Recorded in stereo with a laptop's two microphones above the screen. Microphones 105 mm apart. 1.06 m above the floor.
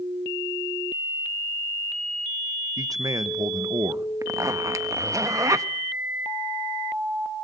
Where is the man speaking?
35° right (ahead or behind), 1.0 m.